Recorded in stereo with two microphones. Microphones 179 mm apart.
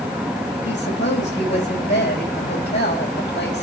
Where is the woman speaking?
80° left, 7 m.